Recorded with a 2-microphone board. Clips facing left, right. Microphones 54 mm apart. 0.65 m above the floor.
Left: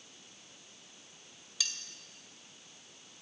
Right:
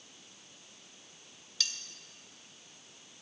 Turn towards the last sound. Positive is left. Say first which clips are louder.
# right 1 dB
turn(degrees=5)  # may be behind; listen again after turning